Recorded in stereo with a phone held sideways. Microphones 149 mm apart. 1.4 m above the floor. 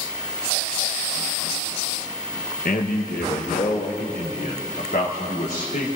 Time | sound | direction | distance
2.6 | a man speaking | 70° left (ahead or behind) | 0.9 m